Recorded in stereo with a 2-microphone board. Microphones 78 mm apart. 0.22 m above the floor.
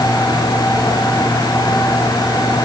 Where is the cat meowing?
No cat meowing in this recording.